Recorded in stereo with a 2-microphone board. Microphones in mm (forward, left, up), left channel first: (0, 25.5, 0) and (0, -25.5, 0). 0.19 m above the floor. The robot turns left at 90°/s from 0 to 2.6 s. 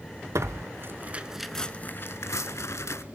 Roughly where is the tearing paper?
Right.